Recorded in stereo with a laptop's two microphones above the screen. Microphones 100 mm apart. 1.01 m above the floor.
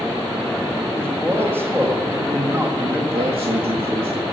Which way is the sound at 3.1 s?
70° right (ahead or behind).